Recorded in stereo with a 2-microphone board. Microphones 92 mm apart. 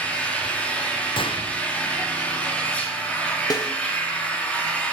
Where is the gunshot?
65° left (ahead or behind), 0.9 m.